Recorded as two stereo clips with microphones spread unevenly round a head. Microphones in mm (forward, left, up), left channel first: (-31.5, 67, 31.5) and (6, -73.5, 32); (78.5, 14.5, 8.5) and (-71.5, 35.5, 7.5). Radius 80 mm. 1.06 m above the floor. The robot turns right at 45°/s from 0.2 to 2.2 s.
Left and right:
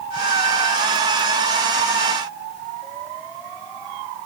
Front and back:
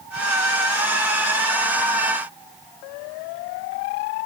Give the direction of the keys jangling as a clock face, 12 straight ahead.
No keys jangling in this recording.